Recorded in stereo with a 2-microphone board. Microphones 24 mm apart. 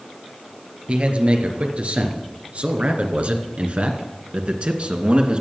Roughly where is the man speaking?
Right.